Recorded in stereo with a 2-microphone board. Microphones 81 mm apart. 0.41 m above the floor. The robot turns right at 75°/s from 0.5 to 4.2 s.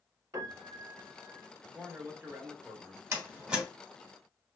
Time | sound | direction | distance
0.3 | a piano | 125° right | 0.9 m
1.7 | a man speaking | 15° right (ahead or behind) | 0.8 m
3.1 | a door slam | 30° right (ahead or behind) | 1.0 m